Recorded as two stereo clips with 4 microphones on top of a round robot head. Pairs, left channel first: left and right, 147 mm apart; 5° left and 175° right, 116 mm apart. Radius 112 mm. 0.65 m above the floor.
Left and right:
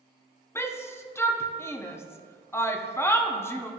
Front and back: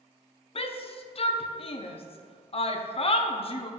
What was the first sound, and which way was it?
A shout, 20° left.